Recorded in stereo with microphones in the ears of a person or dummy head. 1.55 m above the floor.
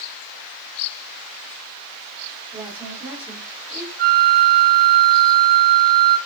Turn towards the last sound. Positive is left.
turn(degrees=-45)  # may be behind; listen again after turning